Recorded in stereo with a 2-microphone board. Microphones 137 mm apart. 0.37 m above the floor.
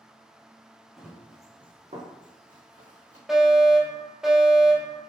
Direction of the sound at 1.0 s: Centre (ahead or behind).